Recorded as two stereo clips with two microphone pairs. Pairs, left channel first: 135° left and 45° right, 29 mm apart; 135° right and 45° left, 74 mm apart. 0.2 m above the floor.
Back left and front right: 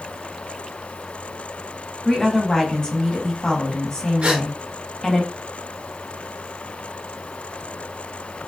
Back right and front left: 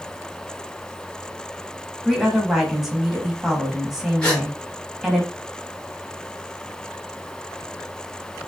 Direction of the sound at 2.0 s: 120° left.